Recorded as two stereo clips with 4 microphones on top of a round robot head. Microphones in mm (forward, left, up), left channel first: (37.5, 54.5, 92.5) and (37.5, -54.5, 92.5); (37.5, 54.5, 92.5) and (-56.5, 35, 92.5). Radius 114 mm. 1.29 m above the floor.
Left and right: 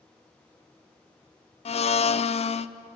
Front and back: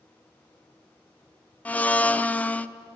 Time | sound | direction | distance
1.6 | a blender | 85° left | 0.5 m